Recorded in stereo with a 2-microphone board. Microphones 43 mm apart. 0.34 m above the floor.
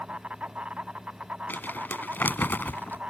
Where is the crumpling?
50° left (ahead or behind).